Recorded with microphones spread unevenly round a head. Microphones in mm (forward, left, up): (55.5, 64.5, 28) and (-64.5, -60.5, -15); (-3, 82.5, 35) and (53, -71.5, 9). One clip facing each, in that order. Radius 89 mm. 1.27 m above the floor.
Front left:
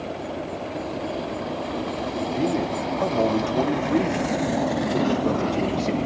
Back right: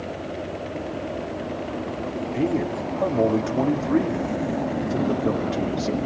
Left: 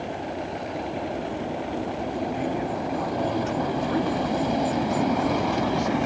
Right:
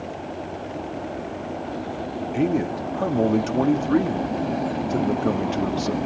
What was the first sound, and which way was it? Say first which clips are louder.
A man speaking: back right 1 dB, right 5 dB; 45° right.